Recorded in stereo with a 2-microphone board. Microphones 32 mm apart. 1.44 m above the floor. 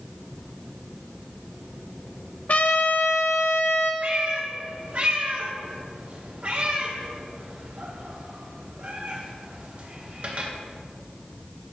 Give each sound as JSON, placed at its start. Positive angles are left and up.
{"t": 2.5, "sound": "a trumpet", "side_deg": 50, "distance_m": 0.8}
{"t": 4.0, "sound": "a cat meowing", "side_deg": -50, "distance_m": 1.3}